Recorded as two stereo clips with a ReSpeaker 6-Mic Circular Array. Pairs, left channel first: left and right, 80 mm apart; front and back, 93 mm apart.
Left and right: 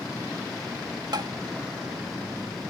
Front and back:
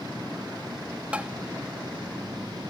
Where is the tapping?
105° right.